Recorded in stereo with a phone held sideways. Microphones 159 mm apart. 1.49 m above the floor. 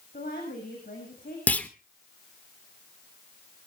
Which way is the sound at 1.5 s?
10° left (ahead or behind).